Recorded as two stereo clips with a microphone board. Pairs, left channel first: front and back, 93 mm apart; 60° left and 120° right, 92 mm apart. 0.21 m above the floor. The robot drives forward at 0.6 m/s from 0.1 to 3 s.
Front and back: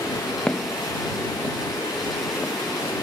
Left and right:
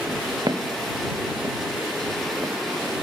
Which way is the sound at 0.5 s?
75° right.